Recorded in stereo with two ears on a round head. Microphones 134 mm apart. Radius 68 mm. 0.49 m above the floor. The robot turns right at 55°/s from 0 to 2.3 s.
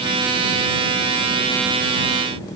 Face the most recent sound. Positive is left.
No sound to turn to.